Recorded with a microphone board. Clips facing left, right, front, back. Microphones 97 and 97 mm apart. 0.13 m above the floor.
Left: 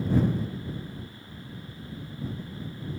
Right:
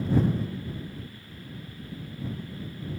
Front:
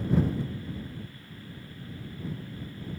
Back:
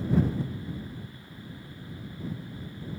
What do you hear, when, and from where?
Only background noise.